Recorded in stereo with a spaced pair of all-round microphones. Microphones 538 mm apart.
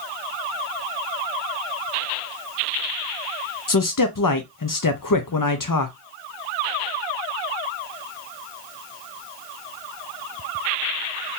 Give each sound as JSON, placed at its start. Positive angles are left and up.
{"t": 3.7, "sound": "a man speaking", "side_deg": 40, "distance_m": 0.6}